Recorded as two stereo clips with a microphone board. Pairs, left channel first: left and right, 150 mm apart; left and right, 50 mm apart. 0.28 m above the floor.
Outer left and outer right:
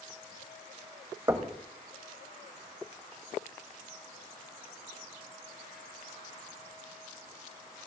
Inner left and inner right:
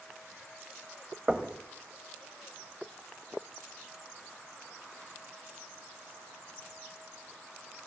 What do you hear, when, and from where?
1.3 s knocking: 20° right (ahead or behind), 1.2 m